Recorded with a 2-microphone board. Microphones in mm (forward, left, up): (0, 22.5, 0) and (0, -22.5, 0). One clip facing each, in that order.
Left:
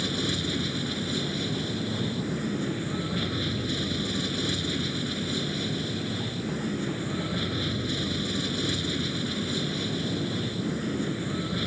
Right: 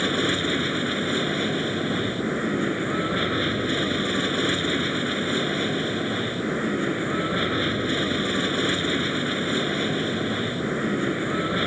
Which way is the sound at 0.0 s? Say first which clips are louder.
Right 6 dB; 40° right (ahead or behind).